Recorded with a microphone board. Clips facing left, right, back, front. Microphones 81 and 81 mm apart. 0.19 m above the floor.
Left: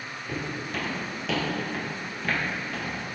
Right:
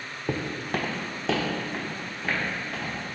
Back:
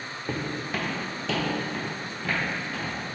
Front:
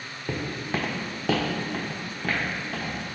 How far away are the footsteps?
About 0.5 m.